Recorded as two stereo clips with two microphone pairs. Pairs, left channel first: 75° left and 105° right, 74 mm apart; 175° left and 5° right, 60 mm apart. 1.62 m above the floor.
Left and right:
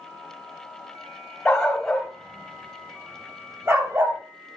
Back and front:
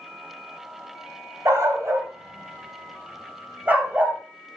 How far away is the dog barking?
About 2.5 m.